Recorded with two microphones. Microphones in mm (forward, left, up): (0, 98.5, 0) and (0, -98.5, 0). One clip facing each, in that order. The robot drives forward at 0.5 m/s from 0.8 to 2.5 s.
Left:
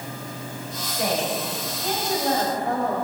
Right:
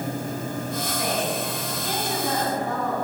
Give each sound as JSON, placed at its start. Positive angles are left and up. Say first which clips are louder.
{"t": 0.8, "sound": "a woman speaking", "louder": "left 4 dB", "side_deg": 55, "distance_m": 6.5}